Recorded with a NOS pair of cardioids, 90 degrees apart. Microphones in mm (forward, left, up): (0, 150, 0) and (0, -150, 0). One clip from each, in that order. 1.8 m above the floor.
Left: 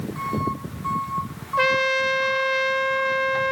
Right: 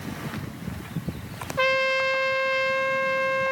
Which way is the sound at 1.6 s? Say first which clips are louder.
Left 2 dB; 10° left.